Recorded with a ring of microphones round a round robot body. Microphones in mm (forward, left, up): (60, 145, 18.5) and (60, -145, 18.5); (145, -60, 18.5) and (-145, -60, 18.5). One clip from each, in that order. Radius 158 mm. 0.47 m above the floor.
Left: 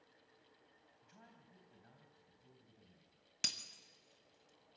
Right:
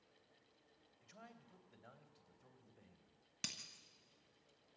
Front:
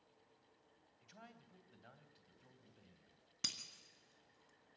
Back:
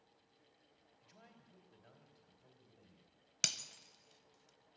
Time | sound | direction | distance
1.0 | a man speaking | 70° right | 3 m
3.4 | breaking glass | 165° left | 1.1 m